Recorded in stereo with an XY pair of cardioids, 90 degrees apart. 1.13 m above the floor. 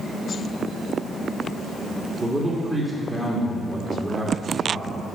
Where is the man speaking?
15° right, 2 m.